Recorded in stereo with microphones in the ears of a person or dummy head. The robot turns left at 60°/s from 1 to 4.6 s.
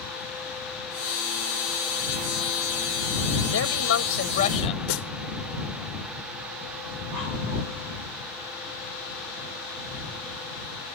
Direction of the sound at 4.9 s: 85° left.